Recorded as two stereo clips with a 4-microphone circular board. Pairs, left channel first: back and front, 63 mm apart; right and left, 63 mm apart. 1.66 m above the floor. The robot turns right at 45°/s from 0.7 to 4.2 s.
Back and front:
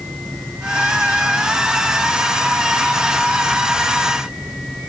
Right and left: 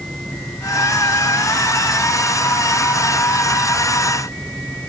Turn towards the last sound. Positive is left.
No sound to turn to.